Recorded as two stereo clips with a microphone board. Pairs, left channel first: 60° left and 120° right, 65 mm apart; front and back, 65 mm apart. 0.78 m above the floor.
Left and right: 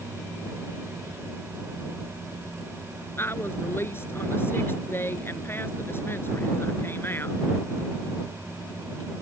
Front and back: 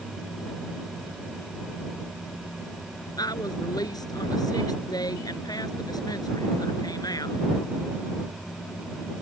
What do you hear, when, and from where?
3.2 s a woman speaking: 5° left